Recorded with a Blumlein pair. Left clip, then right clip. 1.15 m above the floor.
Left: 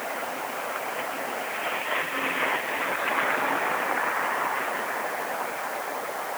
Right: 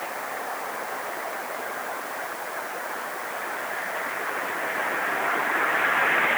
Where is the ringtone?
I don't hear a ringtone.